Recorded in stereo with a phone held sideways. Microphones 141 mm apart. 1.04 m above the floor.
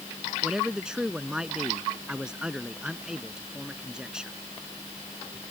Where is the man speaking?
5° right (ahead or behind).